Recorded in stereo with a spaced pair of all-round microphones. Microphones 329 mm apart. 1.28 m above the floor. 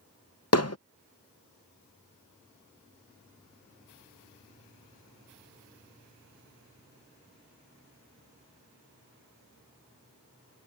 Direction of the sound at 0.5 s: 50° left (ahead or behind).